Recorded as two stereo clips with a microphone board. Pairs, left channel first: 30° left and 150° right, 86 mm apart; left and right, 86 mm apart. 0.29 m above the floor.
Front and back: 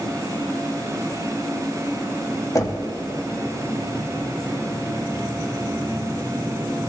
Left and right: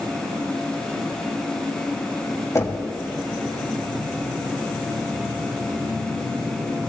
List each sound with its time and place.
2.5 s knocking: 55° left, 1.2 m